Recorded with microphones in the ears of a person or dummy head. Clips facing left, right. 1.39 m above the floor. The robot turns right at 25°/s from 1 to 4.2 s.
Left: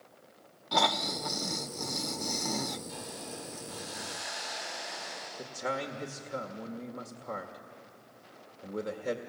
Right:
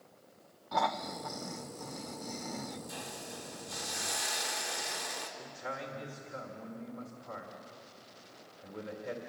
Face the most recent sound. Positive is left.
turn(degrees=80)